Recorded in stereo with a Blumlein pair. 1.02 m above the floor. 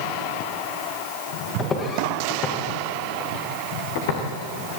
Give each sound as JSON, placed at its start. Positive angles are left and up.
{"t": 1.6, "sound": "footsteps", "azimuth_deg": 25, "distance_m": 5.5}